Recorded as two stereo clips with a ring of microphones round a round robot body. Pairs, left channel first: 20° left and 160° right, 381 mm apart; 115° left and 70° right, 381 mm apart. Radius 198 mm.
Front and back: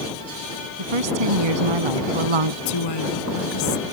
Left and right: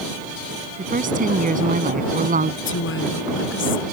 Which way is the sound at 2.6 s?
50° left.